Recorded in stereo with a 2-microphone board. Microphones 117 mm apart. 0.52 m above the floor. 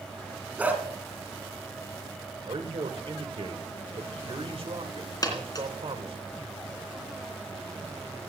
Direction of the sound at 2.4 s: 60° right (ahead or behind).